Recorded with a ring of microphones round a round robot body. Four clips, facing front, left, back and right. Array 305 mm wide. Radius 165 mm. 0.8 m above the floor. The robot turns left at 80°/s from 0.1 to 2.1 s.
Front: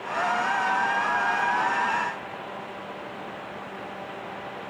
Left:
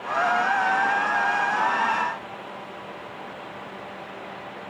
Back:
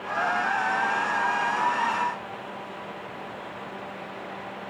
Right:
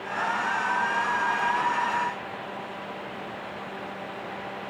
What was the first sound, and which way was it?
Only background noise.